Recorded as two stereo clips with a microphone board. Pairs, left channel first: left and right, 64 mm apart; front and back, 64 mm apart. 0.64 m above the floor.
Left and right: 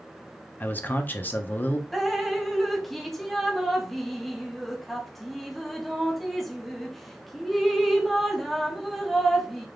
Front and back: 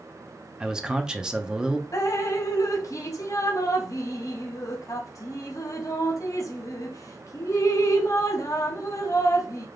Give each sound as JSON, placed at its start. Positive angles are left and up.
{"t": 0.6, "sound": "a man speaking", "azimuth_deg": 110, "distance_m": 0.6}
{"t": 1.9, "sound": "dripping", "azimuth_deg": 5, "distance_m": 0.6}